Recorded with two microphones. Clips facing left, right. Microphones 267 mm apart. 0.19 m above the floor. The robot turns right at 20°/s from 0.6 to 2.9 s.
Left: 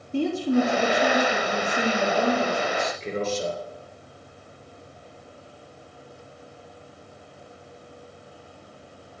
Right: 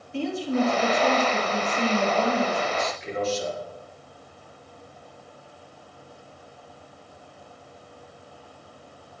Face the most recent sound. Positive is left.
turn(degrees=30)  # may be behind; listen again after turning